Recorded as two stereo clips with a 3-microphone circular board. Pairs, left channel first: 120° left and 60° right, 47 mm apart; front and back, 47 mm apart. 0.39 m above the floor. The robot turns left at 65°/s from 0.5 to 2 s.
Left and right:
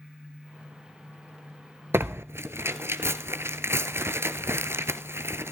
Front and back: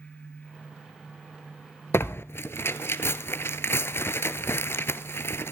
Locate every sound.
1.9 s tearing paper: 25° right, 1.1 m; by 5.5 s 30° right, 1.1 m